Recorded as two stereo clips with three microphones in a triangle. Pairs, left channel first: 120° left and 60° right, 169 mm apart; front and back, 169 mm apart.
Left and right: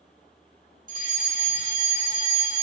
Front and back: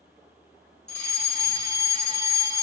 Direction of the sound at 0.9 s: 85° right.